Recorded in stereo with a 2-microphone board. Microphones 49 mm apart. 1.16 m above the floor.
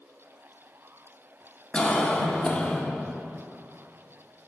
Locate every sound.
1.7 s a cough: 25° left (ahead or behind), 0.8 m